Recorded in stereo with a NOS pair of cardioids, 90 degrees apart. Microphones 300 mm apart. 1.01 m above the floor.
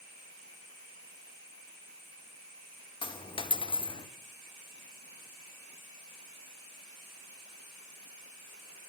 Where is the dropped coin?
15° left, 1.1 m.